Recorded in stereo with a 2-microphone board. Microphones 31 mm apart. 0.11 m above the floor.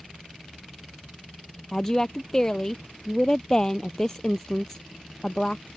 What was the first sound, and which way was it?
A woman speaking, 25° left (ahead or behind).